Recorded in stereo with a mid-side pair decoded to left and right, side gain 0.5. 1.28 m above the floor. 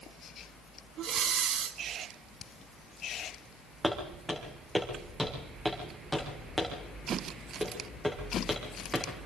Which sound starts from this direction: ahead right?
Breathing, at 1.0 s.